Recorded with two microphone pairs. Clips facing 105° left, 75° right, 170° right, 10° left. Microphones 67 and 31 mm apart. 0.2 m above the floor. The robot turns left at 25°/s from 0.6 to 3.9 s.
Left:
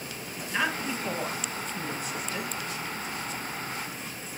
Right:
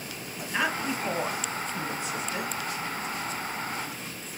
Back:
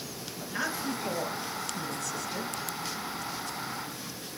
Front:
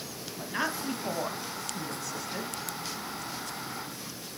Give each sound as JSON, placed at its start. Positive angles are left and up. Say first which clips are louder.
{"t": 0.4, "sound": "a woman speaking", "louder": "right 1 dB, front 1 dB", "azimuth_deg": 5, "distance_m": 1.5}